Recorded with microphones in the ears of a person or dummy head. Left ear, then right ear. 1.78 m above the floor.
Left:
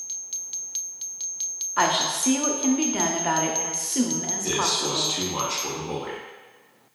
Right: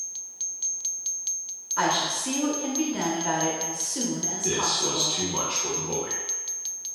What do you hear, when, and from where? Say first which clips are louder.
1.8 s a woman speaking: left 2 dB; 25° left (ahead or behind), 0.5 m
4.4 s a man speaking: left 1 dB; 5° left (ahead or behind), 0.5 m